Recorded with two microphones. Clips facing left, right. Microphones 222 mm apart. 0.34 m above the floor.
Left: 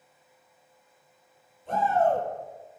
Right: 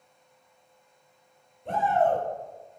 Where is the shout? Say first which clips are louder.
Even; 80° right, 6.5 m.